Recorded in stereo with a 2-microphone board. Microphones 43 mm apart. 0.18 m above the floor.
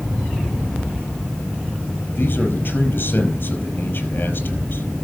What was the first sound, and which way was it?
A man speaking, 45° left (ahead or behind).